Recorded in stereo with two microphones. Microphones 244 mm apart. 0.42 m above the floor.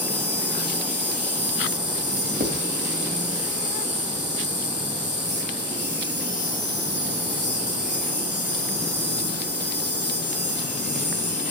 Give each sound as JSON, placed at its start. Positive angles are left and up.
{"t": 0.0, "sound": "an insect", "side_deg": 75, "distance_m": 7.5}
{"t": 2.4, "sound": "writing", "side_deg": -45, "distance_m": 1.9}